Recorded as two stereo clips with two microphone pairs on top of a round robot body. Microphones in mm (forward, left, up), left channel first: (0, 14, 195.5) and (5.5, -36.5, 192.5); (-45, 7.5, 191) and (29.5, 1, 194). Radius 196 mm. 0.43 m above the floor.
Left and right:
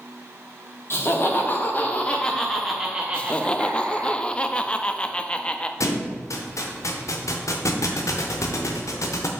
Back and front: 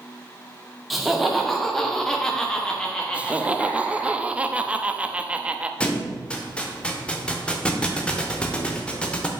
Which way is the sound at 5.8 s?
100° left.